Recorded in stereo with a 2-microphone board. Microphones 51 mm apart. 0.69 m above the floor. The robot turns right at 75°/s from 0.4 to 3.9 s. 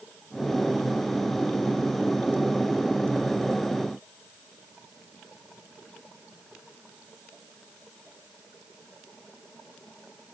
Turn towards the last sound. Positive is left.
No sound to turn to.